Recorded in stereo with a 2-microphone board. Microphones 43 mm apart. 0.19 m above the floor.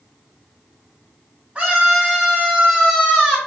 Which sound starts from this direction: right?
A scream, at 1.6 s.